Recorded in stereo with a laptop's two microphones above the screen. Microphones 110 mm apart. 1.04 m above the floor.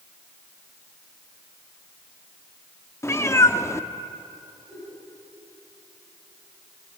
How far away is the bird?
No bird in this recording.